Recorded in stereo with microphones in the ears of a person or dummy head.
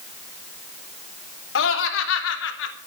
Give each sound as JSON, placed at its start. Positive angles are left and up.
{"t": 1.6, "sound": "laughter", "side_deg": 80, "distance_m": 3.0}